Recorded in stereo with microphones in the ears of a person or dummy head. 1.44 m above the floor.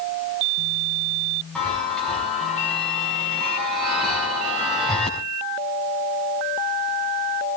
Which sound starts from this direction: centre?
A chime, at 1.6 s.